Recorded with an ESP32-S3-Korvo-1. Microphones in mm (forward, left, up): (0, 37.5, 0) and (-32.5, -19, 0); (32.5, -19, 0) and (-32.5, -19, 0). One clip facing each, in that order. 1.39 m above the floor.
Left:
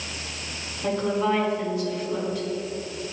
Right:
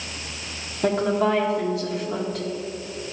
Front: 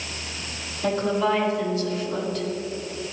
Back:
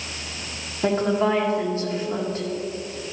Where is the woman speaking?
125° right, 1.9 m.